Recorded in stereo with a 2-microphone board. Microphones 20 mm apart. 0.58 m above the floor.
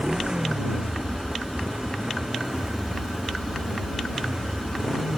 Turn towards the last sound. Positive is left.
turn(degrees=-40)  # may be behind; listen again after turning